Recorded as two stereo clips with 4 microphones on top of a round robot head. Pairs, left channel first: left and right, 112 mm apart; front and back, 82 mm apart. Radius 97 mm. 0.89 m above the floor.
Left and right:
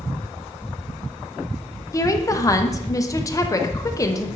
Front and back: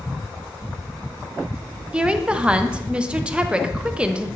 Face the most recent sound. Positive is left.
turn(degrees=115)